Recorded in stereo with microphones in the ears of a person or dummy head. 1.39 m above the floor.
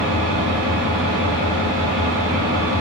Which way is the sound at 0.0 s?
40° right (ahead or behind).